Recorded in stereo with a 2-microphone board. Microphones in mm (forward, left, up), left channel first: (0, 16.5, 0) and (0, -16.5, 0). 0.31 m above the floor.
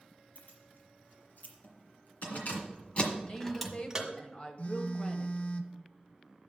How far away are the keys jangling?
About 5 m.